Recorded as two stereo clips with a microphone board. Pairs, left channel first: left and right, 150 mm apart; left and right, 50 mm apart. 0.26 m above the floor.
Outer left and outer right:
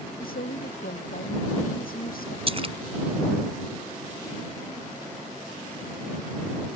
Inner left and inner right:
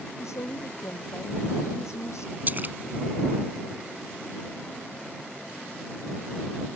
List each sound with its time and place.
0.2 s a woman speaking: 80° left
2.5 s a splash: 40° right (ahead or behind)